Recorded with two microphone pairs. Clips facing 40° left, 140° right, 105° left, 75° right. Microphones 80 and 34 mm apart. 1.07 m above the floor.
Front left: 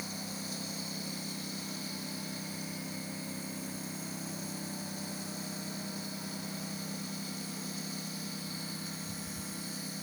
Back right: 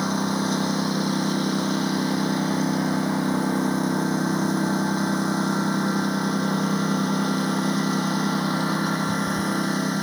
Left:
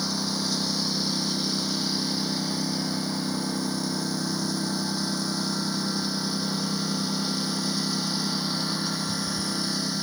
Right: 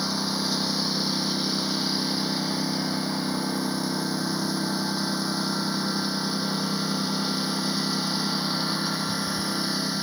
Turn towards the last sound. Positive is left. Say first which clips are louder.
# back right 18 dB, right 1 dB
turn(degrees=-150)